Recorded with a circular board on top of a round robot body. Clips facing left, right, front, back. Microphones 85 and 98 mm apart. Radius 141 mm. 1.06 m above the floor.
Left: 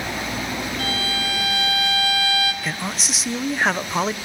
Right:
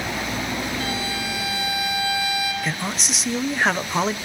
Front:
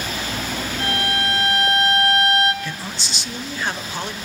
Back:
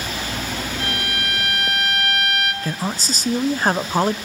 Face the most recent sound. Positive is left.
turn(degrees=180)